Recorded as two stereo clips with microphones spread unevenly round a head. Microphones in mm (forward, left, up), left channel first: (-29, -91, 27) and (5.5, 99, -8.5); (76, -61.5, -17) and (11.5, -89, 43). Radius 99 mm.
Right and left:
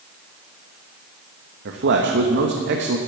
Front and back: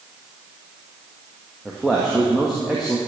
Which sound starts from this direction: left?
A man speaking, at 1.6 s.